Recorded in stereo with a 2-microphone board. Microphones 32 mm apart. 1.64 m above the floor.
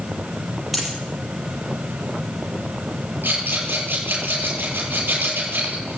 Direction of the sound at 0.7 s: 5° right (ahead or behind).